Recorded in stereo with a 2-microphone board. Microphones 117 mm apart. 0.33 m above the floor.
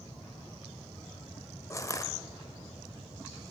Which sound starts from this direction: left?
Crushing, at 1.7 s.